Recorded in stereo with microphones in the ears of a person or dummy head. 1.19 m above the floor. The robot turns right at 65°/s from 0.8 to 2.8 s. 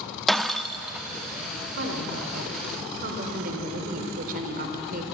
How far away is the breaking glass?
About 0.9 m.